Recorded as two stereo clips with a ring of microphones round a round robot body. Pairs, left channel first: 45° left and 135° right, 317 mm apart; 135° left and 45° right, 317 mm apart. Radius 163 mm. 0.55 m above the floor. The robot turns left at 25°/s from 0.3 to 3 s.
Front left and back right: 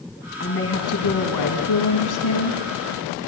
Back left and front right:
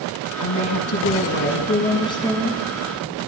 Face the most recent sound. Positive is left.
turn(degrees=35)